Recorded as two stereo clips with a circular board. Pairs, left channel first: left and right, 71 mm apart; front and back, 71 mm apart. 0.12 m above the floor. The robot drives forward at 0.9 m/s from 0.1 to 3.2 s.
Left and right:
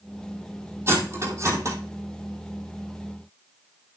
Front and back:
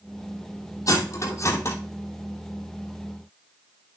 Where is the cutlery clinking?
40° right, 3 m; by 1.8 s 50° right, 2.5 m.